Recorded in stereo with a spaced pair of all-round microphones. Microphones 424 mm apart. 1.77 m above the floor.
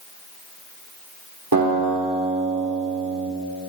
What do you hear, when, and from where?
1.5 s a guitar: 50° right (ahead or behind), 4 m